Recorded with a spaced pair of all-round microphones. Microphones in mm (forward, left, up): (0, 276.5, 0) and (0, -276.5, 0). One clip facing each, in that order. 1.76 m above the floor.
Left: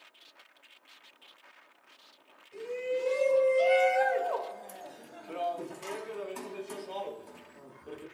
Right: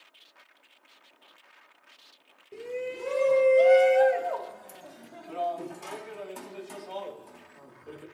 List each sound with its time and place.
2.5 s a shout: 80° right, 1.3 m; by 8.0 s centre (ahead or behind), 3.5 m